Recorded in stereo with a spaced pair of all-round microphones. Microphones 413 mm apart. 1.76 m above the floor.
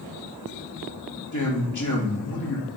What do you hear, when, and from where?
1.3 s a man speaking: 45° left (ahead or behind), 2.5 m